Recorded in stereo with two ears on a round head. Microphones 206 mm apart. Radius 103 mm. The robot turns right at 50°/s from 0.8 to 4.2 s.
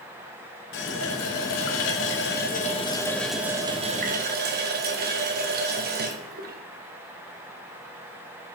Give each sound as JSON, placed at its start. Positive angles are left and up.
{"t": 0.7, "sound": "a running tap", "azimuth_deg": 55, "distance_m": 0.7}